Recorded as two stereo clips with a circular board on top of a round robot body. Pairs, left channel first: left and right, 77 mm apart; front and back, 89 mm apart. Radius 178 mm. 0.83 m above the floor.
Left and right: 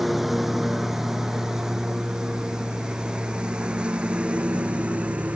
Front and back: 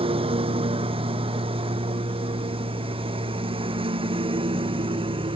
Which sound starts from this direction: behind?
A lawn mower, at 0.0 s.